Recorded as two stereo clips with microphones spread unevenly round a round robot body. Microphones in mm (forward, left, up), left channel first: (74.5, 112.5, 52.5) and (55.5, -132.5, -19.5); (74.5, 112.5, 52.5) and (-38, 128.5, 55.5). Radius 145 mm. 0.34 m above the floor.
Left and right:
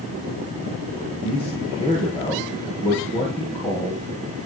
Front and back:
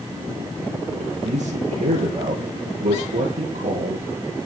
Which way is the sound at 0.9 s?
160° left.